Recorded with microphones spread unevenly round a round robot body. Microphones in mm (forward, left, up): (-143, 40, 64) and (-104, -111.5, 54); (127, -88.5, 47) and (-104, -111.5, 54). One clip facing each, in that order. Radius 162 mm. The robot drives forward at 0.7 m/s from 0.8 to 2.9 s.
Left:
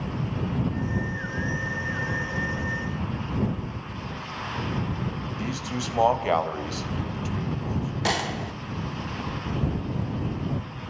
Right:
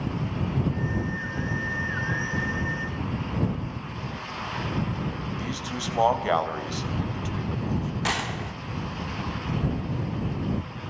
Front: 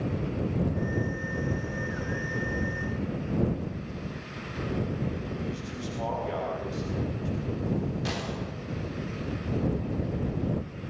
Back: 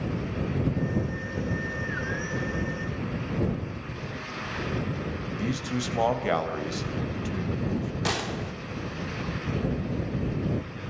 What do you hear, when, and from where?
5.4 s a man speaking: 175° right, 4 m
8.1 s a gunshot: 155° left, 2 m